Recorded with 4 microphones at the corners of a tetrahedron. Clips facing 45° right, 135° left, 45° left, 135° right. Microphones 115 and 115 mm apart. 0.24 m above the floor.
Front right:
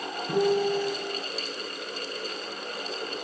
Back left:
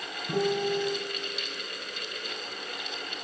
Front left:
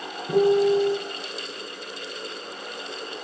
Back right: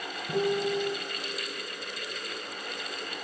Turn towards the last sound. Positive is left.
turn(degrees=25)